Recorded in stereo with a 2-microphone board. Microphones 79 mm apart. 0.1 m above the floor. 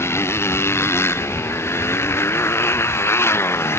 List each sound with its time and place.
0.0 s a motorcycle: 30° left (ahead or behind)